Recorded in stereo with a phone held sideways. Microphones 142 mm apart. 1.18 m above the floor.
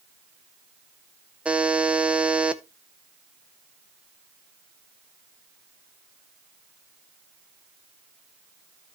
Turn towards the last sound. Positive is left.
turn(degrees=-10)  # may be behind; listen again after turning